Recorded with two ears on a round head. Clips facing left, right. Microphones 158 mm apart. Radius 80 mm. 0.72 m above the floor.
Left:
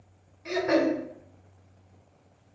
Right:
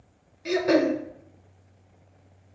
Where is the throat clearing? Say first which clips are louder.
Right 3 dB; 35° right (ahead or behind), 0.5 m.